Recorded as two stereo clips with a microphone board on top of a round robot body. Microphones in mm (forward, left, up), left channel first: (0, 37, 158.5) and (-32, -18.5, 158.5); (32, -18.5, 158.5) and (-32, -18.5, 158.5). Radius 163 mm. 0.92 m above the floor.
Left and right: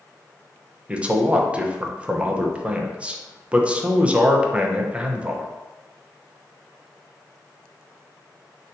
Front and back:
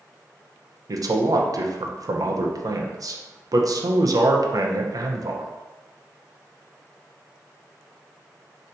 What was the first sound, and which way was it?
A man speaking, 170° left.